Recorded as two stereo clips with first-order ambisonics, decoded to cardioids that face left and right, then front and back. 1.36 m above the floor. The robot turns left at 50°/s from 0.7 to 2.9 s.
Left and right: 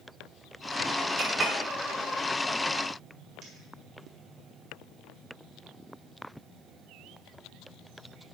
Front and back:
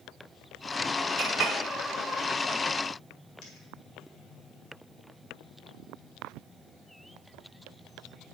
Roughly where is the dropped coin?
Ahead right.